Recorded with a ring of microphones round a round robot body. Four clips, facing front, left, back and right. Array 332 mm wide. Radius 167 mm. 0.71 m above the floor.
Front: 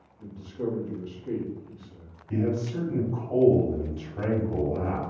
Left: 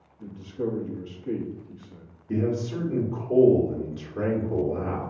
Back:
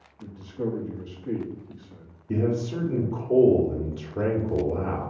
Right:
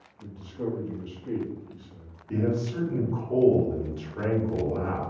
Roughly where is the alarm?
No alarm in this recording.